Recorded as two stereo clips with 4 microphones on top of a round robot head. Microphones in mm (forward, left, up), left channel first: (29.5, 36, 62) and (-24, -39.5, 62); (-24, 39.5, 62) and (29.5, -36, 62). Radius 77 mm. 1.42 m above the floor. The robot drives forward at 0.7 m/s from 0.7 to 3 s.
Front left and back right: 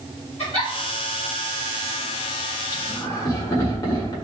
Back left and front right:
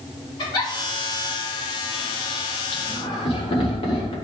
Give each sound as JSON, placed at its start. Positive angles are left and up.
{"t": 0.4, "sound": "a giggle", "azimuth_deg": 80, "distance_m": 4.0}
{"t": 2.7, "sound": "laughter", "azimuth_deg": 105, "distance_m": 3.5}